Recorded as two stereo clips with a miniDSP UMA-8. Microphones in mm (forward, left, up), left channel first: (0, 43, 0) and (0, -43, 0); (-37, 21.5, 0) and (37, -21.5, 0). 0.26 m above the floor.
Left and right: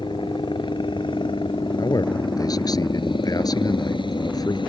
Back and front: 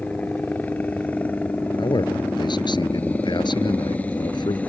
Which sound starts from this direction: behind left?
A man speaking, at 1.8 s.